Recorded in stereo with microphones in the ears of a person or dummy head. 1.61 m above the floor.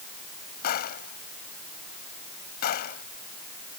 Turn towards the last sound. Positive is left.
turn(degrees=50)  # may be behind; listen again after turning